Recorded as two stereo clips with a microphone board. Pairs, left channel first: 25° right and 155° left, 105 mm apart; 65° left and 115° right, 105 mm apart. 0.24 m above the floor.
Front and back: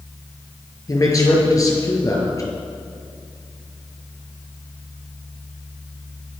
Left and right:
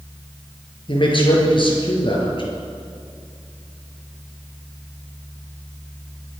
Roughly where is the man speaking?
Ahead left.